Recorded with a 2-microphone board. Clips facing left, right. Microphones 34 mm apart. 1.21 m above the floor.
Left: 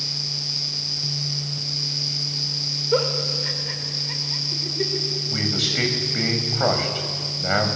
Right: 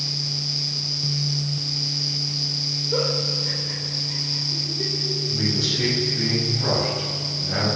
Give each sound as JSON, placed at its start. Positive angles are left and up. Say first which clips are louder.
{"t": 2.9, "sound": "a giggle", "louder": "left 3 dB", "side_deg": 35, "distance_m": 4.5}
{"t": 5.3, "sound": "a man speaking", "louder": "left 1 dB", "side_deg": 75, "distance_m": 7.5}